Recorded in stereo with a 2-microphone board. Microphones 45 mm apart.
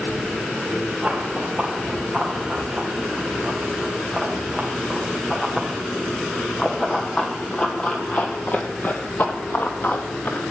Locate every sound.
1.0 s running footsteps: 10° right (ahead or behind), 5.5 m; by 10.5 s 55° left (ahead or behind), 2.0 m